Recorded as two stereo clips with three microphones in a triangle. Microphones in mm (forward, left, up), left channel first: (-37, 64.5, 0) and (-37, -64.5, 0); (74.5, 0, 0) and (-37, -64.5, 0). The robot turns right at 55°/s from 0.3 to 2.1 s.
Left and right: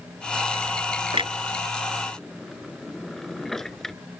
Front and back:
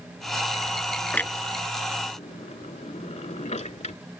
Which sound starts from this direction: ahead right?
A clunk, at 1.1 s.